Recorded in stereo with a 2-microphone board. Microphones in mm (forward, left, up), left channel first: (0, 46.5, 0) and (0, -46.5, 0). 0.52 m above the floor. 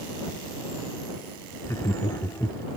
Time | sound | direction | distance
1.6 | laughter | 30° left (ahead or behind) | ?